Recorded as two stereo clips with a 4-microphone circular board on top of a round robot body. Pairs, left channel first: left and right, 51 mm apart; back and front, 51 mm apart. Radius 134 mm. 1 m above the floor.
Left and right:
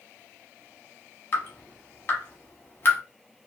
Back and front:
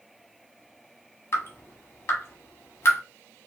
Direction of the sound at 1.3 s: 145° left.